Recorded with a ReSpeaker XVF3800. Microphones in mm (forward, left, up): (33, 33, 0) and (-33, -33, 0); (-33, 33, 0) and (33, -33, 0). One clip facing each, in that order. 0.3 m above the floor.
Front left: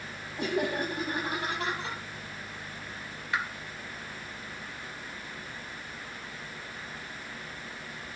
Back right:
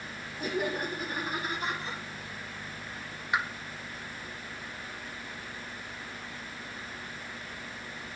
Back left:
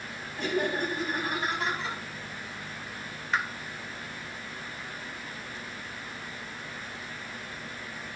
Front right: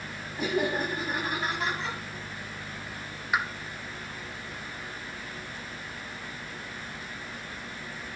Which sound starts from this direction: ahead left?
Laughter, at 0.4 s.